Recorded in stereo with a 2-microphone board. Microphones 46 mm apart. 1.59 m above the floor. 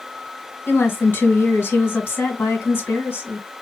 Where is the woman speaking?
55° left (ahead or behind), 1.6 m.